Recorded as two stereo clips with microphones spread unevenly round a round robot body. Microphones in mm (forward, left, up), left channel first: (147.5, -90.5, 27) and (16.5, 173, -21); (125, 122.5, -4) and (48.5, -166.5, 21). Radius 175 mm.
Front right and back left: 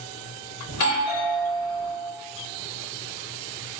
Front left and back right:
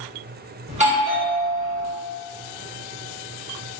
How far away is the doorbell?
About 1.4 m.